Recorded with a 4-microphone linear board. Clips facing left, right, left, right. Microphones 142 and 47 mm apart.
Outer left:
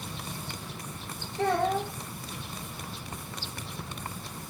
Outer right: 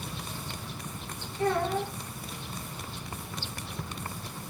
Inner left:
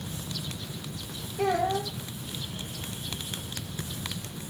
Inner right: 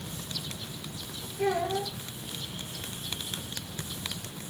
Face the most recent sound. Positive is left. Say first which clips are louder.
# outer left 1 dB, inner left 2 dB
turn(degrees=70)  # may be behind; listen again after turning